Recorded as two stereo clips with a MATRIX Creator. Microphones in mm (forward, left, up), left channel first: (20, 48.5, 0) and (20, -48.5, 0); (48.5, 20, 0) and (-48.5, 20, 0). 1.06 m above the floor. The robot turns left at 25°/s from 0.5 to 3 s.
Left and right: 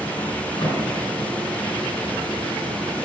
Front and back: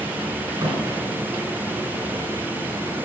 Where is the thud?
130° left, 5.5 m; by 0.9 s 120° left, 5.5 m.